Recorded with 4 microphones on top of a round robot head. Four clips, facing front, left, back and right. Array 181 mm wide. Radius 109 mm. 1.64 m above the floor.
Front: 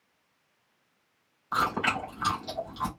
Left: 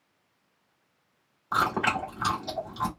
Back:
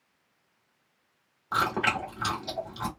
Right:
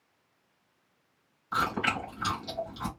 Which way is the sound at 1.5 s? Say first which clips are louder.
Left 4 dB, back 1 dB; 120° left.